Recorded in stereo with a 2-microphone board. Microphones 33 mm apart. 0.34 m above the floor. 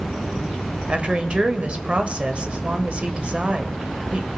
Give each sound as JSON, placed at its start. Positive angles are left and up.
{"t": 0.9, "sound": "a woman speaking", "side_deg": -35, "distance_m": 1.1}